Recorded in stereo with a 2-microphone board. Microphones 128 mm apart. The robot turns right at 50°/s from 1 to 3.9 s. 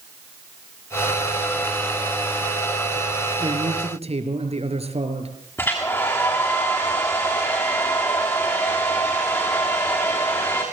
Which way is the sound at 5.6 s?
20° left (ahead or behind).